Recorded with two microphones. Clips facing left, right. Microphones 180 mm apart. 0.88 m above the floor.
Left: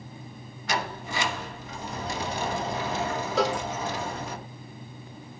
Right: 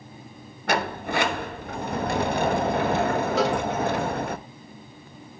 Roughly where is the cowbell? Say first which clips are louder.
Even; centre.